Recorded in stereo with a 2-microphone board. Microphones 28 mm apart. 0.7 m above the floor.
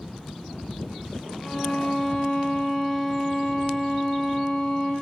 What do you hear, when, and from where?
1.4 s a violin: 25° left (ahead or behind), 4.5 m